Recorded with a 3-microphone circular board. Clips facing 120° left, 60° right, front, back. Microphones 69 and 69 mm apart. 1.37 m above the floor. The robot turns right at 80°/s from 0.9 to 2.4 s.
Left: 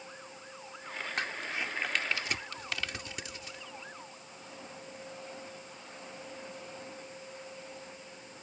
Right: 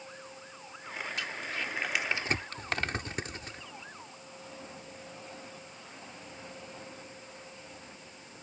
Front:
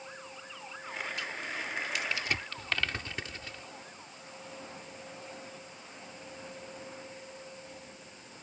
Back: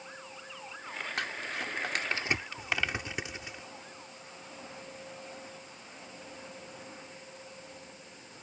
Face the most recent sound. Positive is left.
turn(degrees=-105)